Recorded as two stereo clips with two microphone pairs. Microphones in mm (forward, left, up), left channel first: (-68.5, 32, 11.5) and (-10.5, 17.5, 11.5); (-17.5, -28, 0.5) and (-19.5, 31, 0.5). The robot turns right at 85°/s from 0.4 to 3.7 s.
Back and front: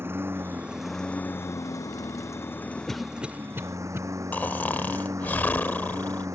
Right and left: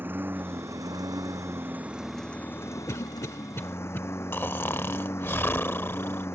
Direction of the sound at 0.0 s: 35° left.